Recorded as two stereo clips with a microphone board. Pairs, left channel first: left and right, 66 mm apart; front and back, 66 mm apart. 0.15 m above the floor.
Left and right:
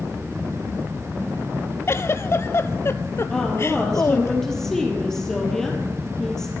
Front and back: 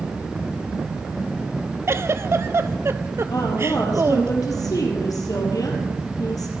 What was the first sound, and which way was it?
A giggle, 135° left.